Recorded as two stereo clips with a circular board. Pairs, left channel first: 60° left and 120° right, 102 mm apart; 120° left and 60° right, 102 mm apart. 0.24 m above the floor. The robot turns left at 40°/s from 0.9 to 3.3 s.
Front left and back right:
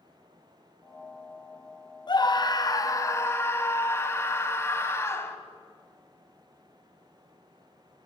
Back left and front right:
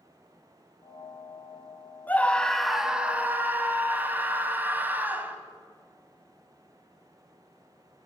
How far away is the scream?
About 1.2 m.